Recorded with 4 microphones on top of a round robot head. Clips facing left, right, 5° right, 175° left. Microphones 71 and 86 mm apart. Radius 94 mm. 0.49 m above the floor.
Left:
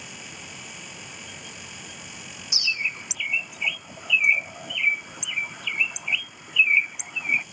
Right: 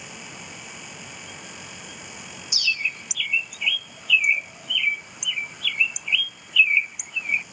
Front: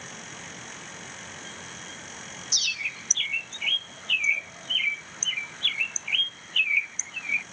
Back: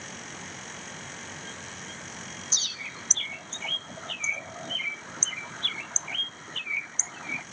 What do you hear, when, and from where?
2.5 s a bird: 140° left